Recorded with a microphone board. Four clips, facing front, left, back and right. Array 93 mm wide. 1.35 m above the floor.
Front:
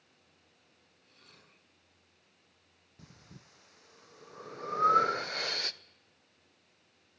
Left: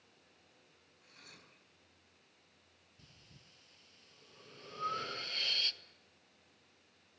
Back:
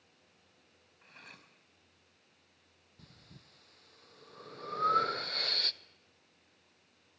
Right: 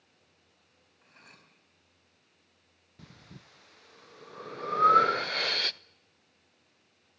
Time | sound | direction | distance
1.0 | cutlery clinking | 150° right | 5 m
3.0 | breathing | 75° right | 0.6 m